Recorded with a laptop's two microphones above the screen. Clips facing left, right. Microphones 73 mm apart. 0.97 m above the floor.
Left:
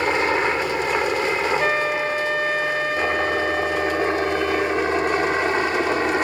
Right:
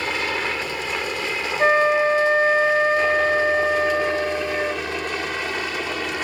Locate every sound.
0.0 s a helicopter: 25° left (ahead or behind); by 6.2 s 30° left (ahead or behind)
1.6 s a flute: 30° right (ahead or behind)